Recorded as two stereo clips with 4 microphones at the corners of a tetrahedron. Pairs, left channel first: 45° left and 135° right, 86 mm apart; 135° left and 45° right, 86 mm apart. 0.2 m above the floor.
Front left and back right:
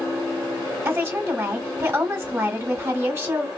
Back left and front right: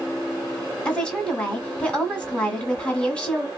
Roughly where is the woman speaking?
Behind.